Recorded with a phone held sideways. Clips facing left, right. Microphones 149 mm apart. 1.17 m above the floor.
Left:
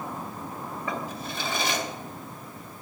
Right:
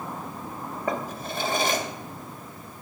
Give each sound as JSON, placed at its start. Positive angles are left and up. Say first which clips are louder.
{"t": 0.9, "sound": "a drawer", "louder": "right 5 dB", "side_deg": -50, "distance_m": 2.0}